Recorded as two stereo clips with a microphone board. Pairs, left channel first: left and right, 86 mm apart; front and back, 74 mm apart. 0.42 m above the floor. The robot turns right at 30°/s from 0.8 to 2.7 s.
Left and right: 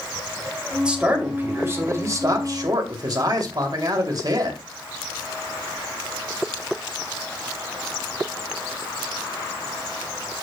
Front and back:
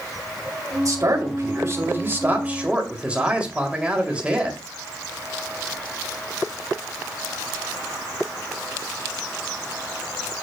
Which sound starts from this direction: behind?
A man speaking, at 0.8 s.